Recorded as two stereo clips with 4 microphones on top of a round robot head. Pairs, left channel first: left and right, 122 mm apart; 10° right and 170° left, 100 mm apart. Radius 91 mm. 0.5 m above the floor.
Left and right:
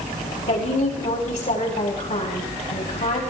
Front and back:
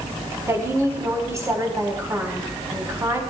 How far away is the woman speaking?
About 4.5 m.